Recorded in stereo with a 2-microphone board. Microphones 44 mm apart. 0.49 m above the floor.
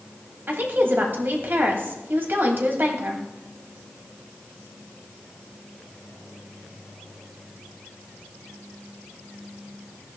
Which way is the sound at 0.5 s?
55° right (ahead or behind).